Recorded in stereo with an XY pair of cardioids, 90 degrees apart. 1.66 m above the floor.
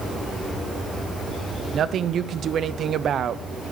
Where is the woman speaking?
65° right, 0.8 m.